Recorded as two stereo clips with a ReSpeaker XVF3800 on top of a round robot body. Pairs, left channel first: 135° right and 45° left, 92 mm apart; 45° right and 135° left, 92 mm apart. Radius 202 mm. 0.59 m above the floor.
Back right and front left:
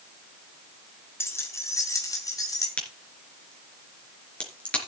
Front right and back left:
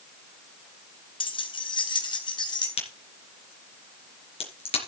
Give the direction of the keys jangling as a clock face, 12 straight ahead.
2 o'clock.